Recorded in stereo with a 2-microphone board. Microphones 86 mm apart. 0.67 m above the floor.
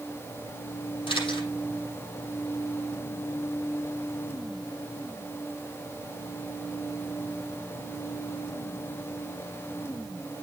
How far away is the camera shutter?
About 7.5 m.